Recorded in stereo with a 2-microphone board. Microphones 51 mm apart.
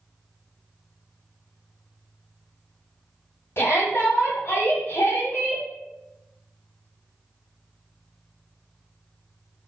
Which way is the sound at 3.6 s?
50° left (ahead or behind).